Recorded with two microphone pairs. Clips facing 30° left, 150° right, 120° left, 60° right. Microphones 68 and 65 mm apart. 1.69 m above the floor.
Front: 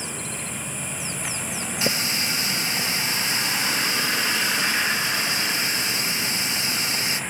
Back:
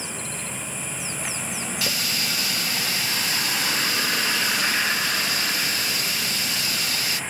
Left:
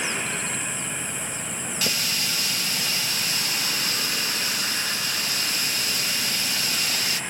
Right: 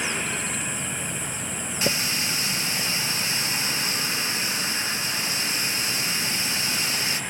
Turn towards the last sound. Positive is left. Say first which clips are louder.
# front 4 dB, right 3 dB
turn(degrees=-20)